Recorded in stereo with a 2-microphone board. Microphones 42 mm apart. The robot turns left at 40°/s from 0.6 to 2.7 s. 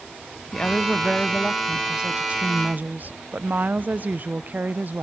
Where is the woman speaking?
30° left, 0.8 m; by 5.0 s 55° right, 0.8 m.